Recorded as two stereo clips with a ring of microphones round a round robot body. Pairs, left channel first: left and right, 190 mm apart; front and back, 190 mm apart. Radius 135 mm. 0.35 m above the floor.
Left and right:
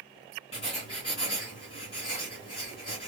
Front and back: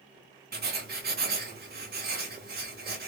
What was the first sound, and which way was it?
Writing, 155° left.